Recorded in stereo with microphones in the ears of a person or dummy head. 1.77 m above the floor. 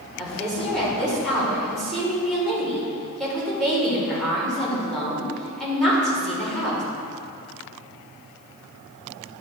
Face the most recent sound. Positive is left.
turn(degrees=5)  # may be behind; listen again after turning